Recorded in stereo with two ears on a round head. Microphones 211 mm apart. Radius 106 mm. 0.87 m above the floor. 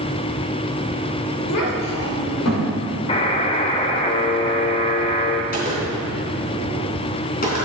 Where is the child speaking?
80° left, 2.5 m; by 2.7 s 65° left (ahead or behind), 3 m.